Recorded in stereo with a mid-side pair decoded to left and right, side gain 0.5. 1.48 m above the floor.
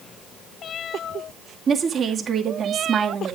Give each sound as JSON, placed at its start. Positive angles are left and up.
{"t": 1.7, "sound": "a woman speaking", "azimuth_deg": -45, "distance_m": 2.0}